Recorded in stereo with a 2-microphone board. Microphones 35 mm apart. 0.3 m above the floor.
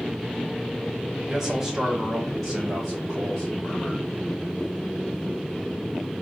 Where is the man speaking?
15° right (ahead or behind), 1.1 m; by 4.1 s 10° right (ahead or behind), 2 m.